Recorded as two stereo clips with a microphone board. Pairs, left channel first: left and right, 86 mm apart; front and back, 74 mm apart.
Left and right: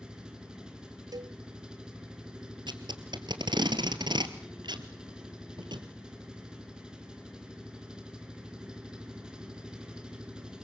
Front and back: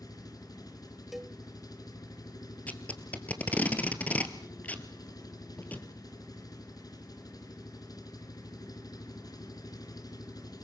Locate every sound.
0.0 s an engine running: 10° right, 3 m
1.1 s a cowbell: 95° right, 0.6 m
2.7 s tape being pulled: 65° right, 2 m